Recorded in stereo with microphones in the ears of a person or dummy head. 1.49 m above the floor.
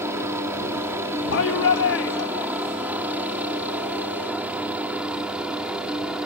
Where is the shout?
85° left.